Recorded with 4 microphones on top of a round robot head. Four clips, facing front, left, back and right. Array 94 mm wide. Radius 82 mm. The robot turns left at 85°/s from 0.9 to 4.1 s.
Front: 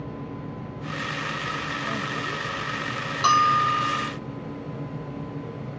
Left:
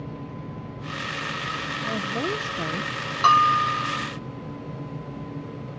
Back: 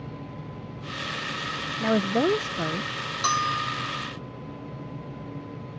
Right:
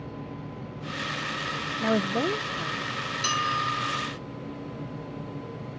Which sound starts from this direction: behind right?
A woman speaking, at 1.8 s.